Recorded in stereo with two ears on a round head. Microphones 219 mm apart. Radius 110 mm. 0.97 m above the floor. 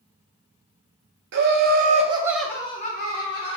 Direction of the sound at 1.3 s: 50° right (ahead or behind).